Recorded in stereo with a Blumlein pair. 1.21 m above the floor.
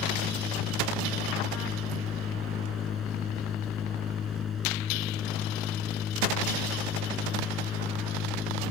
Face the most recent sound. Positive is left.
turn(degrees=20)